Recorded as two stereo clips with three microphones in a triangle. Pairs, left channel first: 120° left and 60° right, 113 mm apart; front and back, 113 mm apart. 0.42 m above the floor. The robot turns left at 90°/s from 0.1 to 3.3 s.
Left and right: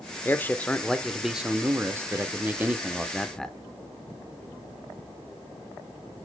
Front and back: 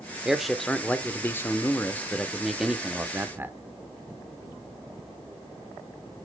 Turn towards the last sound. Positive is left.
turn(degrees=-165)